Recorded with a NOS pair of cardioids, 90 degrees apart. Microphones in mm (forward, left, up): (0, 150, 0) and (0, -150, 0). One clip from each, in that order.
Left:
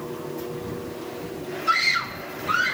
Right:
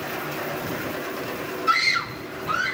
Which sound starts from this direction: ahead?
A scream, at 1.7 s.